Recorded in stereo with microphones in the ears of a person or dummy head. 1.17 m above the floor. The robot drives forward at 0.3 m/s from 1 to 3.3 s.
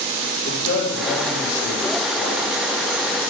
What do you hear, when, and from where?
0.5 s a man speaking: 80° left, 3 m; by 2.5 s 75° left (ahead or behind), 3 m